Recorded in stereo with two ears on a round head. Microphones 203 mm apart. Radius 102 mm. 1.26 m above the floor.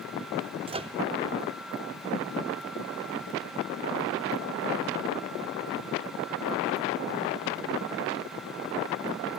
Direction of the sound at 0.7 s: 25° right (ahead or behind).